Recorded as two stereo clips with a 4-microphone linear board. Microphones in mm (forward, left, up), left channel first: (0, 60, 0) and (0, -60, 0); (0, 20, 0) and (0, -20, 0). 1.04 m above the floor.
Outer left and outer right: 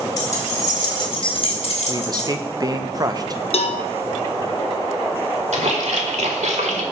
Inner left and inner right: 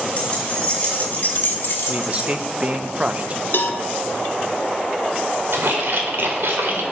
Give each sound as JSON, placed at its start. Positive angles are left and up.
{"t": 0.2, "sound": "keys jangling", "side_deg": 30, "distance_m": 2.5}
{"t": 1.9, "sound": "a man speaking", "side_deg": -35, "distance_m": 0.6}
{"t": 3.5, "sound": "a cowbell", "side_deg": 60, "distance_m": 0.7}
{"t": 5.5, "sound": "a splash", "side_deg": -75, "distance_m": 1.5}